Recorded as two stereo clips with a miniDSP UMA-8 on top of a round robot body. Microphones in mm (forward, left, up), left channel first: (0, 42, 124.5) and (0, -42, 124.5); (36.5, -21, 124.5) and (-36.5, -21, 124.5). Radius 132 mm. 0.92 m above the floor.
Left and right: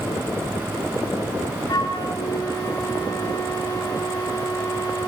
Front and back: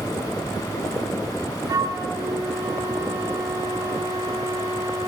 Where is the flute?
135° left, 4.5 m.